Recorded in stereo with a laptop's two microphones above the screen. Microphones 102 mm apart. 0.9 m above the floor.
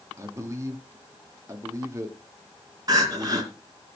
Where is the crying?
35° right (ahead or behind), 2.5 m.